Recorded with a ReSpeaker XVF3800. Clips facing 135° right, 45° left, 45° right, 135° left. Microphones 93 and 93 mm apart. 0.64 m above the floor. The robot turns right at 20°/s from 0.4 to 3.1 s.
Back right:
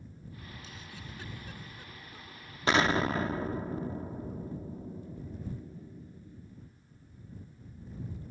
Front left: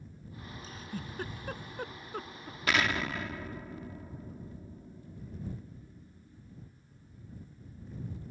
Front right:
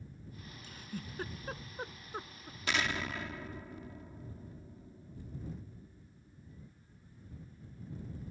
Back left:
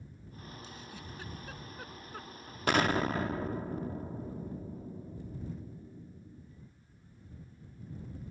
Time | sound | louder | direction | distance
0.6 | a giggle | front left 6 dB, front right 2 dB | 10° right | ?
2.7 | an explosion | back right 4 dB, back left 7 dB | 170° left | ?